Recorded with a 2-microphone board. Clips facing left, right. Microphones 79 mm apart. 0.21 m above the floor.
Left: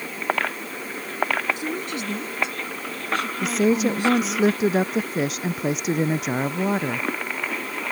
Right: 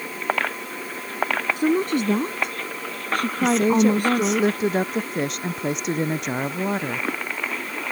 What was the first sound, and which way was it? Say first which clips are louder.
A woman speaking: right 8 dB; 45° right (ahead or behind).